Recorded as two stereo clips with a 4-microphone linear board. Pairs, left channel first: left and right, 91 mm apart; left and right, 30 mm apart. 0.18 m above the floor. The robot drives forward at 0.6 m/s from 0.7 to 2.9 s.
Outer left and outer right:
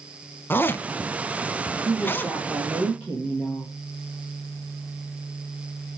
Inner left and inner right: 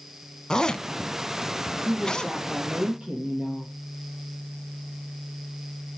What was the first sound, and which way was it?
A zipper, 20° left (ahead or behind).